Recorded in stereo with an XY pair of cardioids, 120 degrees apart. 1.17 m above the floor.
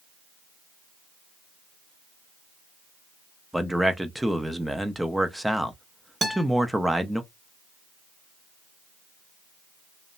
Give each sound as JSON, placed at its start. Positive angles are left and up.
{"t": 3.5, "sound": "a man speaking", "azimuth_deg": -5, "distance_m": 0.6}
{"t": 6.2, "sound": "a guitar", "azimuth_deg": -25, "distance_m": 1.2}